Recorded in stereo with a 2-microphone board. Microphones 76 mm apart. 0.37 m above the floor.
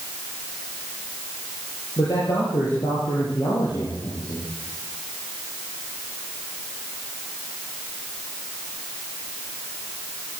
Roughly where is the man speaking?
Left.